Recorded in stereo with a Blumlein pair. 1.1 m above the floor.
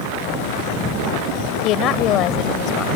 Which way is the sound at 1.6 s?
35° left.